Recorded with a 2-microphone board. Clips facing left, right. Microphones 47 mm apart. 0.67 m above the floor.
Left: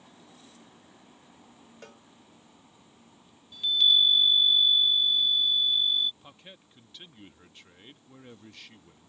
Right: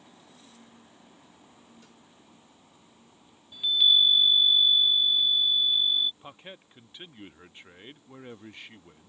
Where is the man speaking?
25° right (ahead or behind).